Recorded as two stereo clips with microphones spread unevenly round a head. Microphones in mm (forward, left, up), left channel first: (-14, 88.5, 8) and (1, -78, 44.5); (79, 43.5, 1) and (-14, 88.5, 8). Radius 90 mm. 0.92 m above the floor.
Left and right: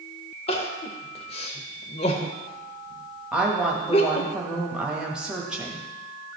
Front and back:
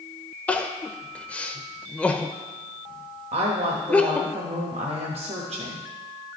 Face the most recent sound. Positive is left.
turn(degrees=-175)